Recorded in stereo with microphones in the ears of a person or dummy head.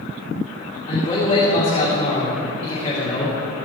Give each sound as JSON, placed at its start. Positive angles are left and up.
{"t": 0.9, "sound": "a man speaking", "side_deg": 30, "distance_m": 2.5}